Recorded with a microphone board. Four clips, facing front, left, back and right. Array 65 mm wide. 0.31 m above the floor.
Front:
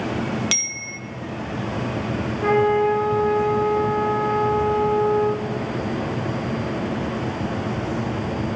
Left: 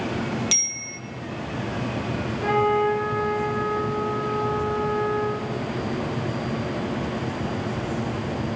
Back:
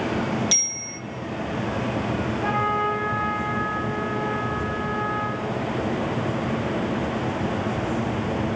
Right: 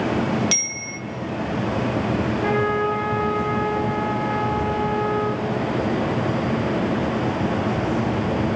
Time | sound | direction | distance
0.5 | a bicycle bell | 5° right | 2.5 m
2.4 | a trumpet | straight ahead | 7.5 m